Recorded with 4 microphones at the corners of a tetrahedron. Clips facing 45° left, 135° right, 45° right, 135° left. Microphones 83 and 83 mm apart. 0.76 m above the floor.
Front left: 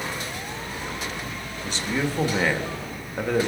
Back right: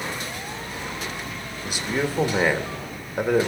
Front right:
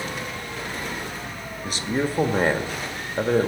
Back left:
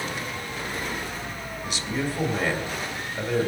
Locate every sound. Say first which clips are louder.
1.6 s a man speaking: back right 1 dB, front right 4 dB; 60° right, 1.4 m